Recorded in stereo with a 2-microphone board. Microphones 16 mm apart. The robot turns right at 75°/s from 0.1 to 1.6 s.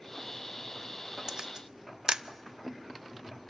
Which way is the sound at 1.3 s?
35° right (ahead or behind).